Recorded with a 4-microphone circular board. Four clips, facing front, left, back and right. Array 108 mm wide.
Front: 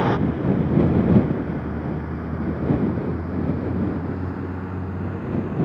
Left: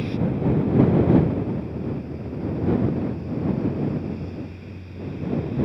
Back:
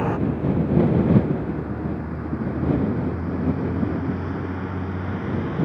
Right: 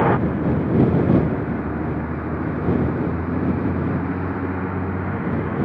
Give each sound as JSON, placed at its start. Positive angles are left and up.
{"t": 0.0, "sound": "a vehicle", "azimuth_deg": -75}